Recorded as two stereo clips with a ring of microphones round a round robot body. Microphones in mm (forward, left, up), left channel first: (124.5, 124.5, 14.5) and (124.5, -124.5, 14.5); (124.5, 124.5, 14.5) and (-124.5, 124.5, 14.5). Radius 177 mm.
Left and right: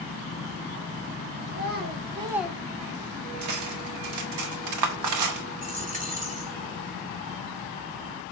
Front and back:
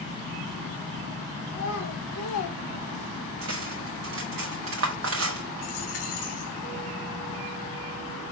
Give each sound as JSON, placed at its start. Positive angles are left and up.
{"t": 1.5, "sound": "a child speaking", "azimuth_deg": -45, "distance_m": 1.3}
{"t": 3.4, "sound": "cutlery clinking", "azimuth_deg": -125, "distance_m": 0.5}
{"t": 5.6, "sound": "a dropped coin", "azimuth_deg": -30, "distance_m": 2.5}